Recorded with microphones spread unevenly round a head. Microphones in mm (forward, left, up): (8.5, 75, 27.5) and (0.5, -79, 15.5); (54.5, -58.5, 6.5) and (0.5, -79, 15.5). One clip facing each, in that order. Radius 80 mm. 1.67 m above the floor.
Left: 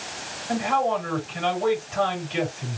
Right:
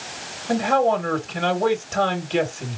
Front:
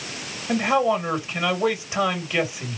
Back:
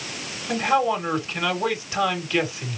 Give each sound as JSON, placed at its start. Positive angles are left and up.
{"t": 0.5, "sound": "a man speaking", "azimuth_deg": -55, "distance_m": 3.0}